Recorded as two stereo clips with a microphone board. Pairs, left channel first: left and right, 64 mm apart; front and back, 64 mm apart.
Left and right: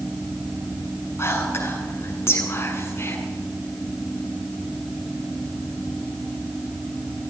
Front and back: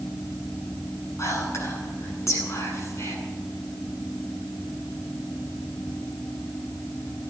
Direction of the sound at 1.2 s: 40° left.